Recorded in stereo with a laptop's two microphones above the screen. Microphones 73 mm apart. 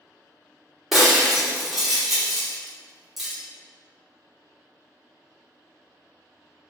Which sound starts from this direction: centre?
Breaking glass, at 0.9 s.